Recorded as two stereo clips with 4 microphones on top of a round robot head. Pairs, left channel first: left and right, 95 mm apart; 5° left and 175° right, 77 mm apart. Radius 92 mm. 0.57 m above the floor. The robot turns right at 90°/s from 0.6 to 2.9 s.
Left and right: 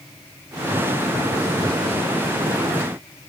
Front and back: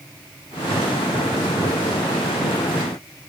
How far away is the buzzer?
I don't hear a buzzer.